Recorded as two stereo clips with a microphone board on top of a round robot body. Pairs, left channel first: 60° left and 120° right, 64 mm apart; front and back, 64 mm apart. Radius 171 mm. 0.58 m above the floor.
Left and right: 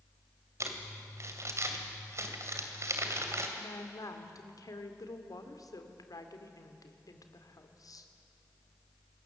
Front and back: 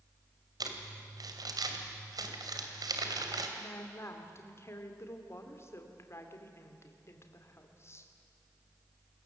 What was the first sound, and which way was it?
Crumpling, 165° right.